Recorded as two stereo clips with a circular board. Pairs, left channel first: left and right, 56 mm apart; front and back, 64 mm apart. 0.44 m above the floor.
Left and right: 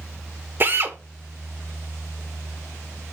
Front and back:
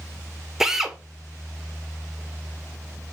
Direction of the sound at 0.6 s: 100° right.